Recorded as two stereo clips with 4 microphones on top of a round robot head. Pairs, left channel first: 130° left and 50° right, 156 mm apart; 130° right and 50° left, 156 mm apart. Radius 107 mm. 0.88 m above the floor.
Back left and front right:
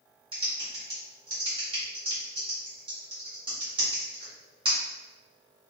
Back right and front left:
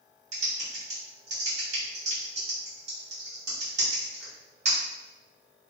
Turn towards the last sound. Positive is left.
turn(degrees=10)